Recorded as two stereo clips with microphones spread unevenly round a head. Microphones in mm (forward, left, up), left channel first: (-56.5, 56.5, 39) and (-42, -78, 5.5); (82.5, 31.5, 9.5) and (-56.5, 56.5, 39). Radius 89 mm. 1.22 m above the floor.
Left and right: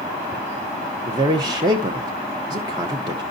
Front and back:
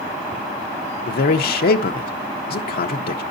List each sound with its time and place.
1.1 s a man speaking: 20° right, 0.7 m